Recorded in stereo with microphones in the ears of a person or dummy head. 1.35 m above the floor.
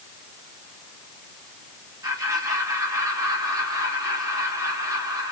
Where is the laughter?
20° right (ahead or behind), 2.5 m.